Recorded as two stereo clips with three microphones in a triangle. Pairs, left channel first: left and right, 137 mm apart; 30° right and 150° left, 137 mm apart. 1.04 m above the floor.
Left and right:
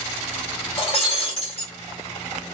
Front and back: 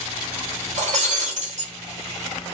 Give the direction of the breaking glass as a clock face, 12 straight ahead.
8 o'clock.